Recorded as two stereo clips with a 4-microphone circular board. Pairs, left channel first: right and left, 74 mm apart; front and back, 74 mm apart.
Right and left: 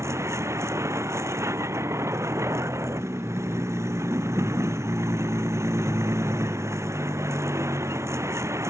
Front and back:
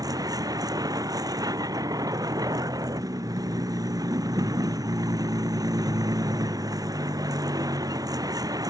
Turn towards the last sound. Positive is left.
turn(degrees=145)